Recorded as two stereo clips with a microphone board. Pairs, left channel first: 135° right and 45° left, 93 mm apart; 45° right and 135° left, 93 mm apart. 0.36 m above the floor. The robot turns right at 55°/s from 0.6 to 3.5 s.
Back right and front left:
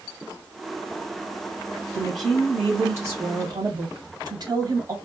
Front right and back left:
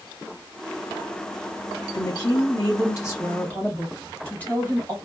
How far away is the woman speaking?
About 1.9 m.